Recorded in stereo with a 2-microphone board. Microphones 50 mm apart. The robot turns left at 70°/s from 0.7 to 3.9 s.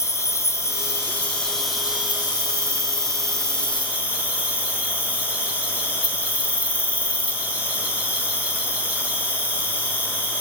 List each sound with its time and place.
0.0 s an insect: 70° left, 1.3 m; by 10.4 s 155° right, 1.3 m